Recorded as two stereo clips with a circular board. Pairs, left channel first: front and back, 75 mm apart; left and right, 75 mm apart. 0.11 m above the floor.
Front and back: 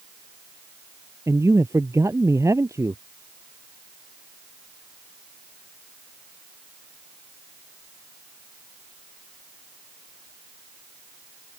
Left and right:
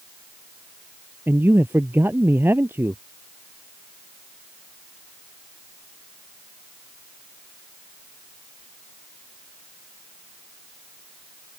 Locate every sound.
1.3 s a man speaking: 145° right